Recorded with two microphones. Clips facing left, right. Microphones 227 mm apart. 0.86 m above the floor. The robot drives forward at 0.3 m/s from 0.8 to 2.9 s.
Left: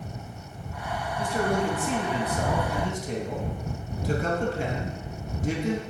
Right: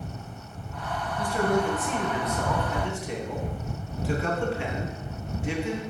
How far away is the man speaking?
About 1.0 m.